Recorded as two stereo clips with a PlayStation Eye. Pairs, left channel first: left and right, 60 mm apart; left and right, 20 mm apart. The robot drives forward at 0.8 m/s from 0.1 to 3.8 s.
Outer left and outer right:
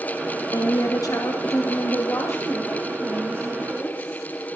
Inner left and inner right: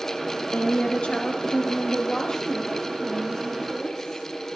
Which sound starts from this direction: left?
A woman speaking, at 0.5 s.